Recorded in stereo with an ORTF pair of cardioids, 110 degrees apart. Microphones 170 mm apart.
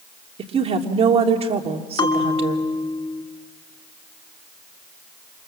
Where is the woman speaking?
35° right, 3 m.